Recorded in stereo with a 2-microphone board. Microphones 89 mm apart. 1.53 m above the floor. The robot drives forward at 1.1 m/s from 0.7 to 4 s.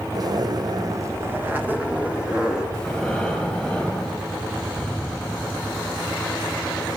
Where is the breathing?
5° left (ahead or behind), 3.5 m.